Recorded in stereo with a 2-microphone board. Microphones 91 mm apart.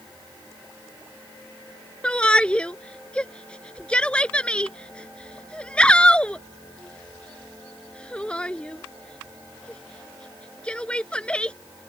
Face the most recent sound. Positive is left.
turn(degrees=10)  # may be behind; listen again after turning